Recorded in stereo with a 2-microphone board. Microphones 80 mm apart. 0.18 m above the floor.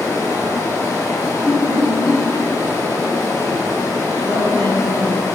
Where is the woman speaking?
15° left (ahead or behind), 1.2 m.